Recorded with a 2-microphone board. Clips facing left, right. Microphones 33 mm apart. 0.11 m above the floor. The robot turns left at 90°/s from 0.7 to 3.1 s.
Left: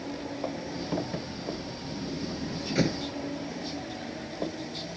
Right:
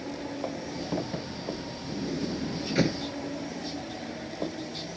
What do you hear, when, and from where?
1.9 s a sliding door: 45° right (ahead or behind); by 3.0 s 5° left (ahead or behind)